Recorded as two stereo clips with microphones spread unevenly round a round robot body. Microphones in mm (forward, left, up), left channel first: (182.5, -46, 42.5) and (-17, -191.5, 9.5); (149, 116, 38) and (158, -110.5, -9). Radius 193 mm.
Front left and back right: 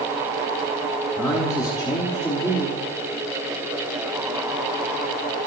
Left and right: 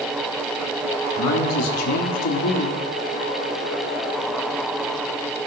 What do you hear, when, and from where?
1.2 s a man speaking: 120° left, 1.0 m